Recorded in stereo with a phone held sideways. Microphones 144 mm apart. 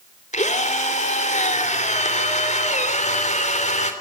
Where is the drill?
55° left (ahead or behind), 3 m.